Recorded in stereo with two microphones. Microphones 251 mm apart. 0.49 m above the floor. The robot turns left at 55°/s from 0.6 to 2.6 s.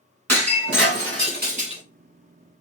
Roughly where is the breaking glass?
Right.